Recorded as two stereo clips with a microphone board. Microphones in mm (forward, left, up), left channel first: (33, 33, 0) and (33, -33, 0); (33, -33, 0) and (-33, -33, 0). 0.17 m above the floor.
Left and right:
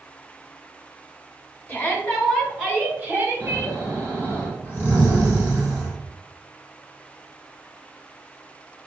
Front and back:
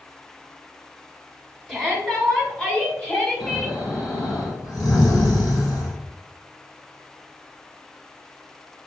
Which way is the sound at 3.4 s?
25° right.